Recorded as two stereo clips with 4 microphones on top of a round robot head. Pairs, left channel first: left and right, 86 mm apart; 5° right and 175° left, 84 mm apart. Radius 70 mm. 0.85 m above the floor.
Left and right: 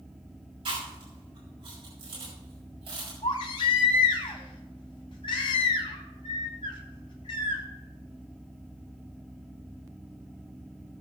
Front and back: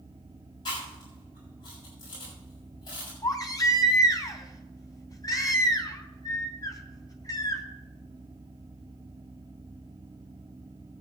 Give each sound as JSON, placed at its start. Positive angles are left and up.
{"t": 0.7, "sound": "chewing", "azimuth_deg": -55, "distance_m": 7.0}
{"t": 3.2, "sound": "a baby crying", "azimuth_deg": 40, "distance_m": 3.0}